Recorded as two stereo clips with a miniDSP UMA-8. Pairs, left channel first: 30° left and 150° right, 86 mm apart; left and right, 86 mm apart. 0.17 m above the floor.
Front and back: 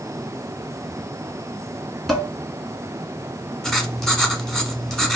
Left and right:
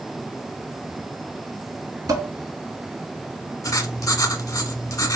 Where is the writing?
110° left, 0.8 m.